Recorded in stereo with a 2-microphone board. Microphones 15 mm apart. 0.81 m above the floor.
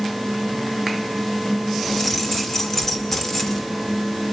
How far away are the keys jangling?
About 1.9 m.